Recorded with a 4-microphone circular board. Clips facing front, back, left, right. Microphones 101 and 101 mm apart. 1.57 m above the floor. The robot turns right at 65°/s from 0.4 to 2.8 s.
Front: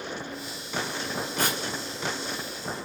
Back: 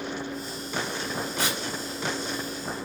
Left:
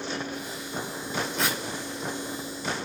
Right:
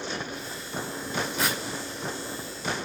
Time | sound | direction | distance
1.4 | tearing paper | 5° right | 1.8 m